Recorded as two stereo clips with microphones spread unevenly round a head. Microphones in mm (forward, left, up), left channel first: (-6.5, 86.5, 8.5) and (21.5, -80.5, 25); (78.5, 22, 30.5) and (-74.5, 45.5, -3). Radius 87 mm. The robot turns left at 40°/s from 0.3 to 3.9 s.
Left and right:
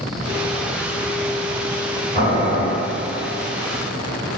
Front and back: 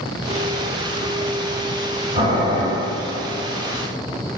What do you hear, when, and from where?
2.1 s boiling: 160° right, 1.8 m; by 2.6 s straight behind, 1.8 m